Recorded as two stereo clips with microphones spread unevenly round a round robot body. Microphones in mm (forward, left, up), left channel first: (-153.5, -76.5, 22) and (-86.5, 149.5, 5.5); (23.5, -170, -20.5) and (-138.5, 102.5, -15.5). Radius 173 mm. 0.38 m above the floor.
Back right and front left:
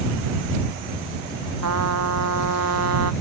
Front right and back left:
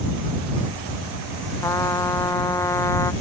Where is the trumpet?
25° left.